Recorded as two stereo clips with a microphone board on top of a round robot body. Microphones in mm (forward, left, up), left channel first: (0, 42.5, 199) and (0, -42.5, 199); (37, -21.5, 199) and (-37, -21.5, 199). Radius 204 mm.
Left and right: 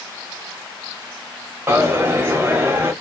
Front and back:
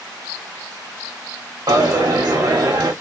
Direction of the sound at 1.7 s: 150° right.